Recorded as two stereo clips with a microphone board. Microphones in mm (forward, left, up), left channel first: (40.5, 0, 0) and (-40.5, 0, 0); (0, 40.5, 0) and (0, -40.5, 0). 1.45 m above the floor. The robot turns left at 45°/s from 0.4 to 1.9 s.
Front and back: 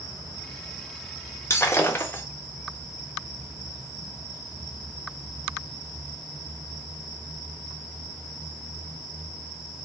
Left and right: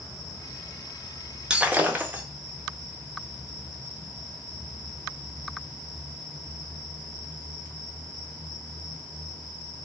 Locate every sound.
1.5 s breaking glass: 20° right, 0.6 m; by 2.2 s 40° right, 0.6 m